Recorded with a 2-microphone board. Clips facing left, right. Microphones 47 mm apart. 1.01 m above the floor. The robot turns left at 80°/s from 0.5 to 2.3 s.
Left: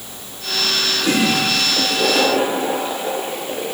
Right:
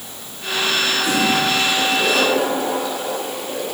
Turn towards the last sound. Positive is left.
turn(degrees=40)